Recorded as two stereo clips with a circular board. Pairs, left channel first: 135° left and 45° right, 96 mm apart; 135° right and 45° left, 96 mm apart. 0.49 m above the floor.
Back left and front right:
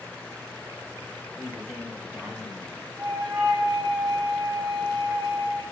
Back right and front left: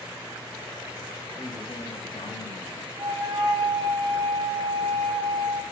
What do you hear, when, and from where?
1.4 s a man speaking: 140° right, 1.8 m
3.0 s a flute: 15° left, 3.5 m